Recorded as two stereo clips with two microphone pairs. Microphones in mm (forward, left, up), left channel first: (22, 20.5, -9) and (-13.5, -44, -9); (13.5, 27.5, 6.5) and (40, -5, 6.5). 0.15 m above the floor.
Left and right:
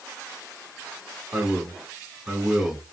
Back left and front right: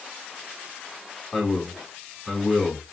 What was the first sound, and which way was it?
A man speaking, 175° left.